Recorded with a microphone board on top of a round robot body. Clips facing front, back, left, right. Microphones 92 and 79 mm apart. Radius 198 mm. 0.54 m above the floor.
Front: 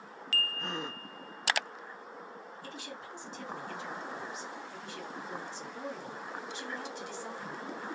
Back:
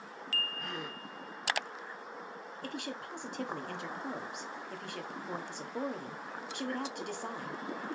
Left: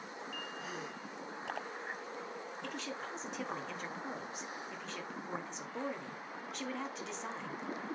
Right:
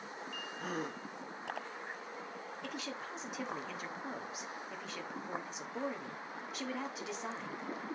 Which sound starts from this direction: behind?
A woman speaking, at 2.6 s.